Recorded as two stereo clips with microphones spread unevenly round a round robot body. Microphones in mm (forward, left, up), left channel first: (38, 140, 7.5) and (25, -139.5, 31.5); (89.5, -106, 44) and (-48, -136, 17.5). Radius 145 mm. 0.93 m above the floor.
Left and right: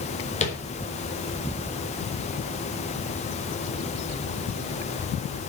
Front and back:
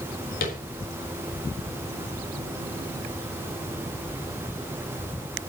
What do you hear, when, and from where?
0.4 s tapping: 25° left, 4 m